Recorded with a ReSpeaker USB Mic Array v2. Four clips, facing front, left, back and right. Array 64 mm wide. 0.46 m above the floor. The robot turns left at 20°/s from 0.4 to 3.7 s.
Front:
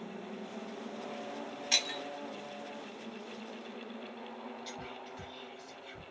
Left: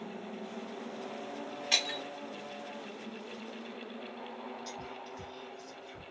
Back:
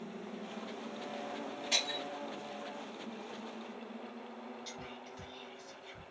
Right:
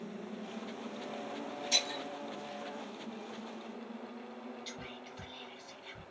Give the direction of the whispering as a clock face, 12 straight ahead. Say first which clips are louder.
Left 3 dB, front 3 dB; 3 o'clock.